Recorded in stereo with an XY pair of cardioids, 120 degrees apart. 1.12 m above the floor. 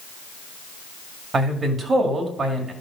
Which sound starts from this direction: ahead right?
A man speaking, at 1.3 s.